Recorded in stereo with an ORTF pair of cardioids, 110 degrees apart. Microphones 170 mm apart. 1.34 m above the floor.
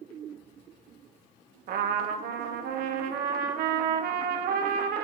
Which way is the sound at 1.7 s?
65° right.